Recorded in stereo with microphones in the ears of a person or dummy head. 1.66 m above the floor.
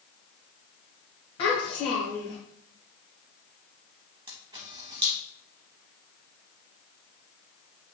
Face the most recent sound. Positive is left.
turn(degrees=-25)  # may be behind; listen again after turning